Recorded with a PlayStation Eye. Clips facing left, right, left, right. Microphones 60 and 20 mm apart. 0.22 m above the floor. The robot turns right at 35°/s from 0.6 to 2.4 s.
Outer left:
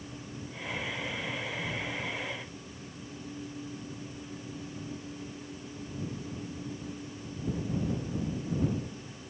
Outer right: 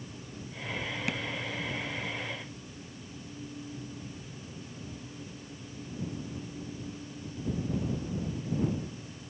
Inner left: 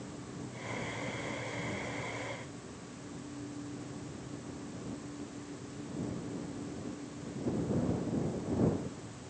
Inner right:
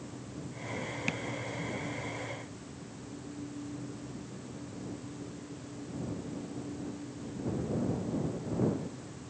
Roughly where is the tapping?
Right.